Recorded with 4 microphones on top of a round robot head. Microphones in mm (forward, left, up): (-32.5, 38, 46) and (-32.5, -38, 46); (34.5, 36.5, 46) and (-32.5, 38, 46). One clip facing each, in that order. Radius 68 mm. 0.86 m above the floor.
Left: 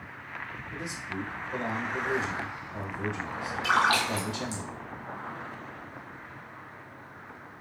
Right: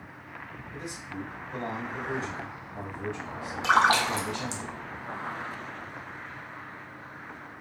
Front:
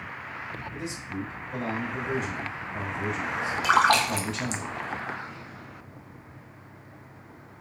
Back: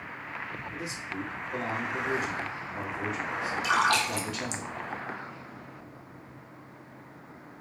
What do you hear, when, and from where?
0.7 s a man speaking: 95° left, 2.5 m
3.6 s a splash: 30° right, 0.5 m